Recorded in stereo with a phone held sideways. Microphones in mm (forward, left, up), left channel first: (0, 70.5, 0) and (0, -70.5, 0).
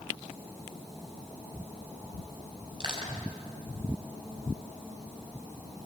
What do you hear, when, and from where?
2.8 s crushing: 35° right (ahead or behind), 6.5 m